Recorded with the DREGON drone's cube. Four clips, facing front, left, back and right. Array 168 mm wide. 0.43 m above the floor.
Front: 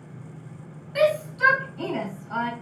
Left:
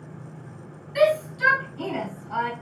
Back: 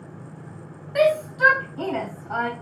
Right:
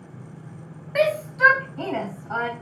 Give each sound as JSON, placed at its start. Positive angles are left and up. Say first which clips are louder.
{"t": 0.9, "sound": "a shout", "louder": "left 1 dB, back 2 dB", "azimuth_deg": -115, "distance_m": 3.0}